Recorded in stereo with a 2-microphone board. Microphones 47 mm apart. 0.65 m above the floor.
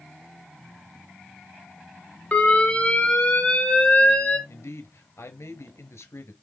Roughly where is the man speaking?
Left.